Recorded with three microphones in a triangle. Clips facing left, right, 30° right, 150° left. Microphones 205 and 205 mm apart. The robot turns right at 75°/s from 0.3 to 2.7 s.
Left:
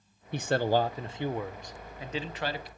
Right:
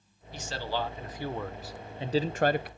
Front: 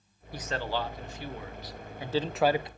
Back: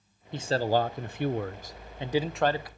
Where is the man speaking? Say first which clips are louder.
Left 8 dB, back 7 dB; 85° left, 0.6 m; by 2.7 s 95° right, 0.6 m.